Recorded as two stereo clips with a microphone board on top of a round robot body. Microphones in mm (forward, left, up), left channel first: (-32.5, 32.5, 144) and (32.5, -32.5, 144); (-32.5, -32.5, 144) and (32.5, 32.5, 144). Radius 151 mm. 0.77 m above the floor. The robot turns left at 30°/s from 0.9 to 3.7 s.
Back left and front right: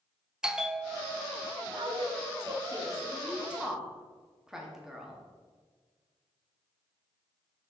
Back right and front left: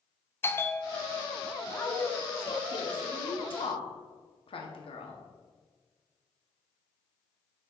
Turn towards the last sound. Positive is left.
turn(degrees=-130)